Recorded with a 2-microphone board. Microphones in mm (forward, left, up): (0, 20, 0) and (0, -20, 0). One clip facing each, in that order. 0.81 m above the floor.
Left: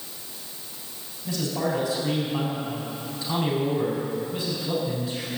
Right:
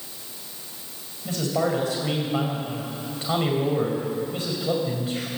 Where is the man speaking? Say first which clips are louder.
Right 3 dB; 50° right (ahead or behind), 5 m.